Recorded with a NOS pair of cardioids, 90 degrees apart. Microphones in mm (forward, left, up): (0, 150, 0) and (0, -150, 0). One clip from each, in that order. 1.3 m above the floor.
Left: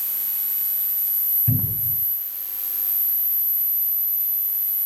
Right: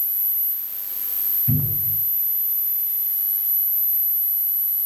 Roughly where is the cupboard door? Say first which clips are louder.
Right 1 dB; ahead left.